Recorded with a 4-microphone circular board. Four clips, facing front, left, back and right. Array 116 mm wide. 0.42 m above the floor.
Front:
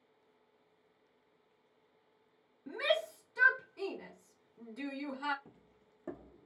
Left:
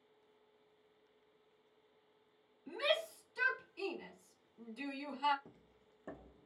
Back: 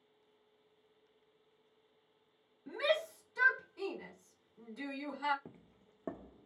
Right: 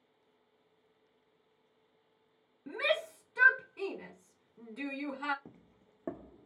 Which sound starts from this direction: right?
A shout, at 2.7 s.